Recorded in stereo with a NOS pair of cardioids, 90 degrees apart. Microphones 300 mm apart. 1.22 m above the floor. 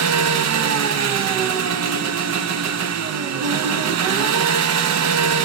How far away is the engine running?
About 1.1 m.